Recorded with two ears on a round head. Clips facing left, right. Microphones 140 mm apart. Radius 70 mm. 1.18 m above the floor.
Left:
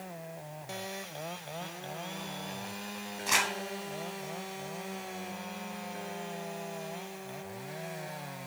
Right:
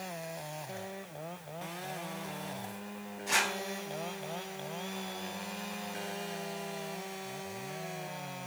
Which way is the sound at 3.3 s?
75° left (ahead or behind).